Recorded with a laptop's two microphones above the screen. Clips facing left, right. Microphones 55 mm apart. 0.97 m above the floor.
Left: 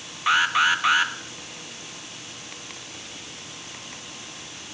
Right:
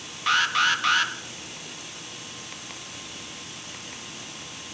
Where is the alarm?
15° left (ahead or behind), 1.8 m.